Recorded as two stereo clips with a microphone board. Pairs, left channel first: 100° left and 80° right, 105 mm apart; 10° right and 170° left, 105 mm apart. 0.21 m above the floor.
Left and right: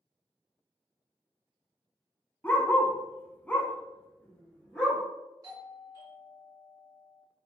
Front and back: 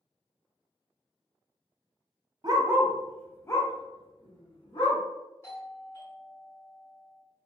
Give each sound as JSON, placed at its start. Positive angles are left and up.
{"t": 2.4, "sound": "a dog barking", "azimuth_deg": 160, "distance_m": 0.5}
{"t": 5.4, "sound": "a doorbell", "azimuth_deg": -60, "distance_m": 1.6}